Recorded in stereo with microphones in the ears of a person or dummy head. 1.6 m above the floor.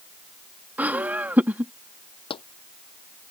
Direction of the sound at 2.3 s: 30° left (ahead or behind).